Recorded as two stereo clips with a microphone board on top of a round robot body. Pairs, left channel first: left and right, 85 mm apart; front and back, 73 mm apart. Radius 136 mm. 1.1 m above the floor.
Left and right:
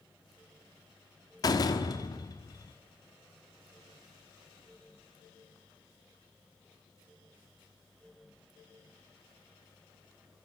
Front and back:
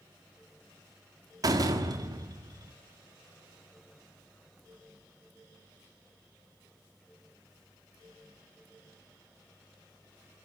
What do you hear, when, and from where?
1.4 s a door slam: 140° left, 1.5 m